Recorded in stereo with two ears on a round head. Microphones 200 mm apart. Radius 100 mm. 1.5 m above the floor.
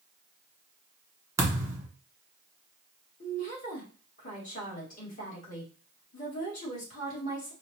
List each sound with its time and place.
1.4 s a thud: 15° right (ahead or behind), 1.2 m
3.2 s a woman speaking: 35° left (ahead or behind), 2 m